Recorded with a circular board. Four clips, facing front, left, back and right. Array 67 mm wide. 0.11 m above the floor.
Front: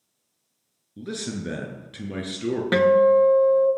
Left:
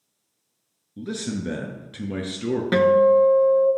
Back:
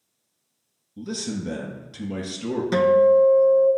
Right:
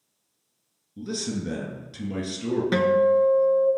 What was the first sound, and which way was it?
A man speaking, 45° left.